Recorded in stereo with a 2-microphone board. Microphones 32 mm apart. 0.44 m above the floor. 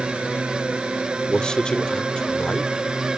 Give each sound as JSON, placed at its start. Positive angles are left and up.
{"t": 0.0, "sound": "a drone", "side_deg": -40}
{"t": 1.3, "sound": "a man speaking", "side_deg": 30}